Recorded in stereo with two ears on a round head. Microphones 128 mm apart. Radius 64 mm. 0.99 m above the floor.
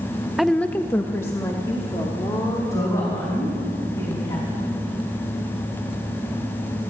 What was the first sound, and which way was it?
A woman speaking, centre (ahead or behind).